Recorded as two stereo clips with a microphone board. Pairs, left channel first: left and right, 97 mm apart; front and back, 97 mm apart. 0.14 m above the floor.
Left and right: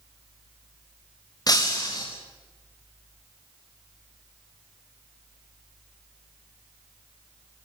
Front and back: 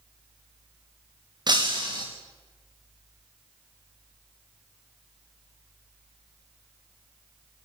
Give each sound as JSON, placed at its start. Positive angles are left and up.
{"t": 1.5, "sound": "breaking glass", "azimuth_deg": 140, "distance_m": 4.0}